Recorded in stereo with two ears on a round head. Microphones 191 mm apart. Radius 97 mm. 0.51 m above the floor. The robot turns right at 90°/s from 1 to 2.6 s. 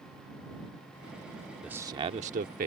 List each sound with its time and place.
1.6 s a man speaking: 175° right; by 2.7 s 85° right